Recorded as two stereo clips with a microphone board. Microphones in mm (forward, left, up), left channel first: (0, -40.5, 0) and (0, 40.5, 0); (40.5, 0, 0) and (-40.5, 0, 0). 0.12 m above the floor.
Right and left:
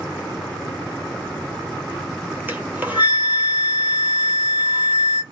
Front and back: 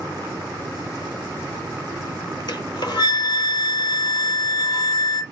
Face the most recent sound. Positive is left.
turn(degrees=25)